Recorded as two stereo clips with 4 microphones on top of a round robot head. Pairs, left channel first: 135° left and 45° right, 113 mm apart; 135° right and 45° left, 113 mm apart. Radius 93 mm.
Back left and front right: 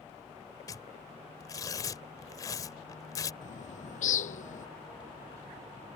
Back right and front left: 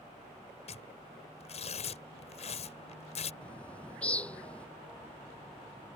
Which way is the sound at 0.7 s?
165° right.